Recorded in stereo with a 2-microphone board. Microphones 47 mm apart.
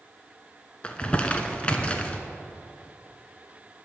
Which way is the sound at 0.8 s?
25° left (ahead or behind).